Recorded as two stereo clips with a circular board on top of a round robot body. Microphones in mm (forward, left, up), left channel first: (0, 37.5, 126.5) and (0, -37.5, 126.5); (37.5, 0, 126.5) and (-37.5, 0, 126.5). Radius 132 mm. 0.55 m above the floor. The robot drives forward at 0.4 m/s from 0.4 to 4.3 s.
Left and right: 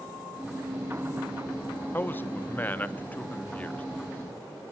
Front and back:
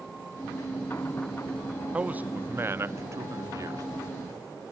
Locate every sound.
1.9 s a man speaking: 120° left, 1.1 m; by 3.8 s 155° left, 1.5 m